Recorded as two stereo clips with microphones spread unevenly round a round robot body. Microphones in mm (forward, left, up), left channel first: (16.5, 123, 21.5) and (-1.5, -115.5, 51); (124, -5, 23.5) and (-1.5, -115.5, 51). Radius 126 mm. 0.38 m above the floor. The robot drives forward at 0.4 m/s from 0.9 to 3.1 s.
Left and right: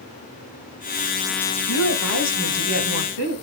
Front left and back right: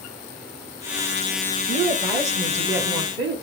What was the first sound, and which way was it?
A woman speaking, 105° left.